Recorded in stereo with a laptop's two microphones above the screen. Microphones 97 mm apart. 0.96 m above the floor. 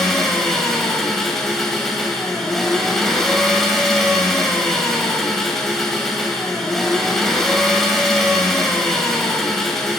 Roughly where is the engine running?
Centre.